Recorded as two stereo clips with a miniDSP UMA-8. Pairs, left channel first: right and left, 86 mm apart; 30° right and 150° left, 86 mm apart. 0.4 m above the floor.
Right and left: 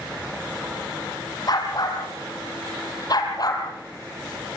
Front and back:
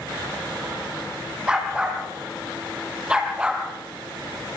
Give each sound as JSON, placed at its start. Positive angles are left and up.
{"t": 1.5, "sound": "a dog barking", "azimuth_deg": -130, "distance_m": 4.0}